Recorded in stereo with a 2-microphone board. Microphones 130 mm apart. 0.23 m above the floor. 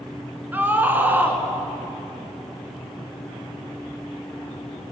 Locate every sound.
0.5 s a scream: 15° right (ahead or behind), 2 m